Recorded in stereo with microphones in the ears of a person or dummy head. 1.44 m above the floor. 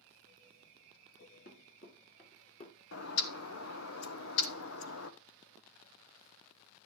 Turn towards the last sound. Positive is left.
turn(degrees=75)  # may be behind; listen again after turning